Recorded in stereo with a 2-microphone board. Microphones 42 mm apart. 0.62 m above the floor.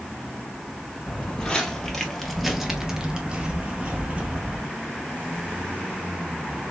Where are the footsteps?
20° left (ahead or behind), 1.1 m; by 4.7 s 35° right (ahead or behind), 1.2 m.